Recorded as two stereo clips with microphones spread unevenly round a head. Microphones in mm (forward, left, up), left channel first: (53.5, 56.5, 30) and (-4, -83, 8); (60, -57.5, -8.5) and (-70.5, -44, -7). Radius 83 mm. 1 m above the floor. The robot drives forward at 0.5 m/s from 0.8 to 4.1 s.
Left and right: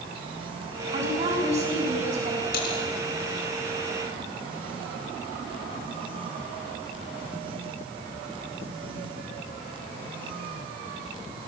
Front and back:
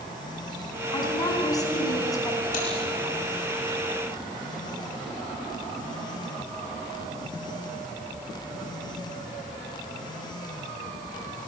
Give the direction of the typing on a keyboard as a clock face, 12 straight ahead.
10 o'clock.